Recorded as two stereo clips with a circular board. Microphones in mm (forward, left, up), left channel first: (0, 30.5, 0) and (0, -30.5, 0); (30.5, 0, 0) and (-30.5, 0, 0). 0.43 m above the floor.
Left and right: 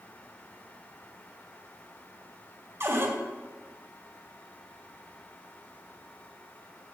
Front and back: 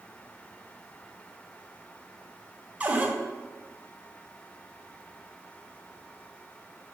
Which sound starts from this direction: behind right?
A cupboard door, at 2.8 s.